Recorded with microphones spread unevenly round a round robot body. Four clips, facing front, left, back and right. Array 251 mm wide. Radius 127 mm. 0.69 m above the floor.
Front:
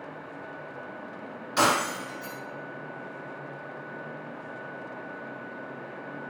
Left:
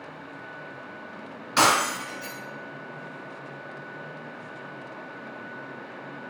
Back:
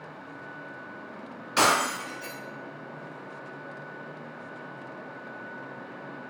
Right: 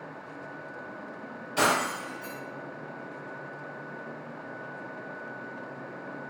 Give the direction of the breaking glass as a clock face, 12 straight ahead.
7 o'clock.